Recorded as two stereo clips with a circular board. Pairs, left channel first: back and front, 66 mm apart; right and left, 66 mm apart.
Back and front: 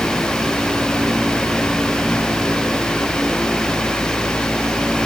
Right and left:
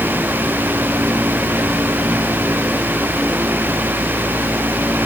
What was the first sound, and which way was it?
Only background noise.